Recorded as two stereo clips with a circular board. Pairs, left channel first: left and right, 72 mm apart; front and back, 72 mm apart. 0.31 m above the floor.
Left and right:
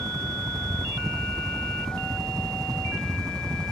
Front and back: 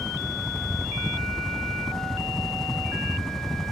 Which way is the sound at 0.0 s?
105° right.